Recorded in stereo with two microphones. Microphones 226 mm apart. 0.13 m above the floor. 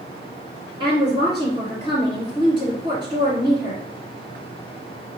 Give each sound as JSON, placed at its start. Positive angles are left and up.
{"t": 0.8, "sound": "a woman speaking", "side_deg": -20, "distance_m": 1.6}